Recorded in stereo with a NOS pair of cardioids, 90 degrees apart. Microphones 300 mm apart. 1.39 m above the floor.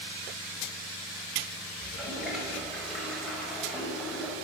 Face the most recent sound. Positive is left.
turn(degrees=0)